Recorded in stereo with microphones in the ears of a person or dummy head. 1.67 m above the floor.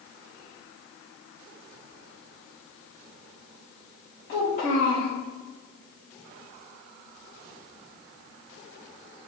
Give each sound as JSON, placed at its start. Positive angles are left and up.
{"t": 4.3, "sound": "a child speaking", "side_deg": 50, "distance_m": 1.0}